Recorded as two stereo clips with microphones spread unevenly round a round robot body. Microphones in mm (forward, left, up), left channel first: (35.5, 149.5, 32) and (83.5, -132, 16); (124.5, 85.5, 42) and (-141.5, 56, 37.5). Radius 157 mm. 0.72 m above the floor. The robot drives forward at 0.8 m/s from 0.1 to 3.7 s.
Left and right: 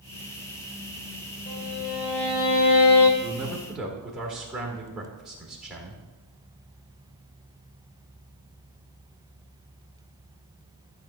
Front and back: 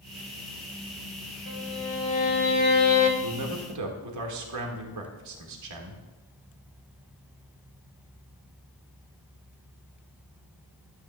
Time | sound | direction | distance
1.5 | a violin | 40° left | 2.5 m
3.2 | a man speaking | 165° right | 1.5 m